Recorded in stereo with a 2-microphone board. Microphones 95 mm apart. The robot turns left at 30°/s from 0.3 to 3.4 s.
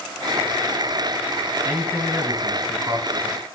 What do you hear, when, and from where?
1.6 s a man speaking: 15° right, 1.9 m; by 3.4 s 70° right, 1.9 m